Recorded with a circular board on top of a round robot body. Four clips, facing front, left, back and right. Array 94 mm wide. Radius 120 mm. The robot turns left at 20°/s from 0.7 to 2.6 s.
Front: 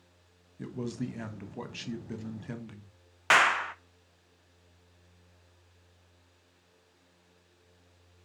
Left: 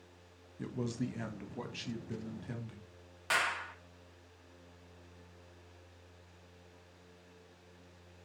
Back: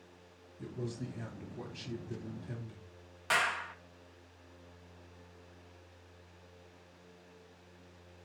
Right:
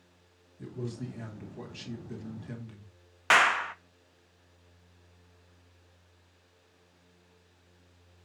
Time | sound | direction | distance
0.6 | a man speaking | 40° left | 1.6 m
3.3 | a clap | 45° right | 0.6 m